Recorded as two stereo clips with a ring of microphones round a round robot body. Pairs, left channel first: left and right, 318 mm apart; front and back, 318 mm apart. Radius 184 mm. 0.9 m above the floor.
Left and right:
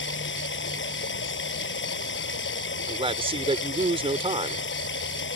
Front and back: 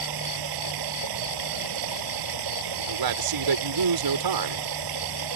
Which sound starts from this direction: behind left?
Running water, at 0.0 s.